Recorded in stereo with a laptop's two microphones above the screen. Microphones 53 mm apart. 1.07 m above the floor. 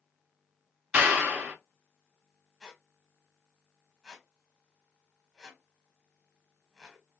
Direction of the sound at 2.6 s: 5° left (ahead or behind).